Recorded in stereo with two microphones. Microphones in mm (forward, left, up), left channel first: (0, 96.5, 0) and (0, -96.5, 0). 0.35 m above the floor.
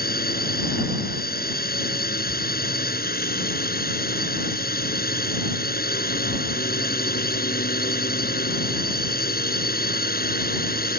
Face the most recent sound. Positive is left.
turn(degrees=50)  # may be behind; listen again after turning